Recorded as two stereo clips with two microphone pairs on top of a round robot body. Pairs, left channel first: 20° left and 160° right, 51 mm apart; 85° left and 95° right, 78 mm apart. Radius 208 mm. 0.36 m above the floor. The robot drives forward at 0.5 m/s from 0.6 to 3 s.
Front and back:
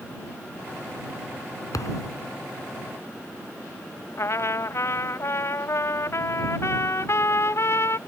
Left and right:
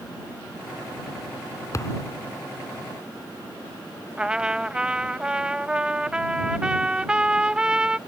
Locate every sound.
1.7 s a thud: 30° left
4.2 s a trumpet: 20° right